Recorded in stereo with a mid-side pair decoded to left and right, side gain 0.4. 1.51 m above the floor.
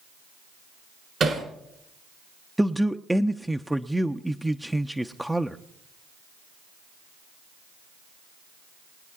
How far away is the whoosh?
I don't hear a whoosh.